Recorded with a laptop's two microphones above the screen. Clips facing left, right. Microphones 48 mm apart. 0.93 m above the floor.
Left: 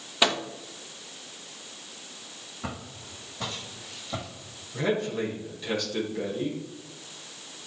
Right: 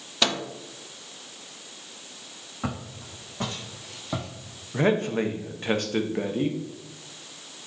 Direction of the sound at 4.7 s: 45° right (ahead or behind).